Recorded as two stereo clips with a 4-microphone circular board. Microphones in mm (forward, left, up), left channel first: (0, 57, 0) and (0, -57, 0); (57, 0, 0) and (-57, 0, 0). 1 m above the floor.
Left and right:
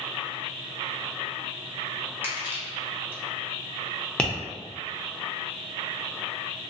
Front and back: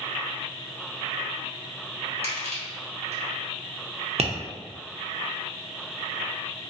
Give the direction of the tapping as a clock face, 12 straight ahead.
6 o'clock.